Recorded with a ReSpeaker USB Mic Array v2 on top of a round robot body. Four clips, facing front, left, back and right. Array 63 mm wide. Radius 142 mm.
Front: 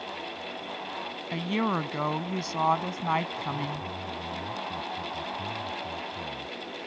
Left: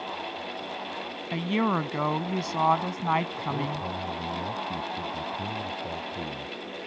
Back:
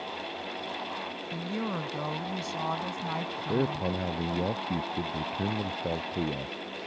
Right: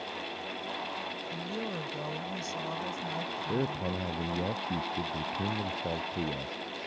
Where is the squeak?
No squeak in this recording.